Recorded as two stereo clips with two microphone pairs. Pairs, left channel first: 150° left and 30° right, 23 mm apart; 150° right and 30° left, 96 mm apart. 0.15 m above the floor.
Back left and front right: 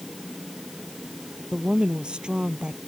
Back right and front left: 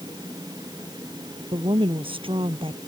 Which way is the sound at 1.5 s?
15° left.